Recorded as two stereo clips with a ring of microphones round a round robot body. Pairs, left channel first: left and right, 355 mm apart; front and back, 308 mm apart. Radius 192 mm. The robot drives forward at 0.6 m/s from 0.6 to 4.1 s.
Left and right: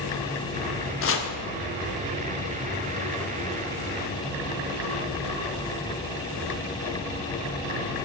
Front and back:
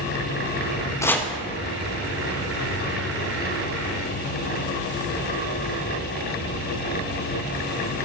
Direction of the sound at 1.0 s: 75° left.